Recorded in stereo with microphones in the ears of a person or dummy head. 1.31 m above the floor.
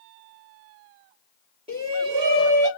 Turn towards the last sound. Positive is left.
turn(degrees=-25)  # may be behind; listen again after turning